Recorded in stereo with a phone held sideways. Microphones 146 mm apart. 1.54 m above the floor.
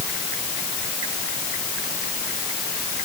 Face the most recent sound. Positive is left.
No sound to turn to.